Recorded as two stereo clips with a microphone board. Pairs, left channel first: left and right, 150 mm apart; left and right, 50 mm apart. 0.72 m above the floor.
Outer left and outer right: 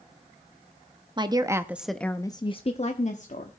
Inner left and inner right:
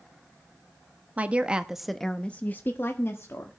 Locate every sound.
1.2 s a woman speaking: 30° right (ahead or behind), 1.2 m; by 3.5 s 55° left (ahead or behind), 1.6 m